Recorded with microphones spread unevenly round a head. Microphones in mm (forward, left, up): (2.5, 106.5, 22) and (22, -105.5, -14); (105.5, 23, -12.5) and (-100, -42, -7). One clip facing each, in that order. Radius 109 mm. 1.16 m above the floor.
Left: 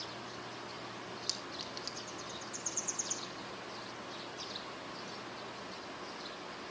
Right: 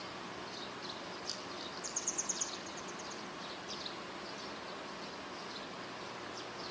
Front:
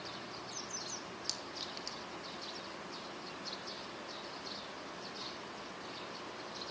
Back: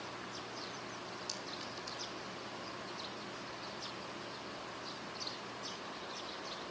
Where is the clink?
55° left, 3 m.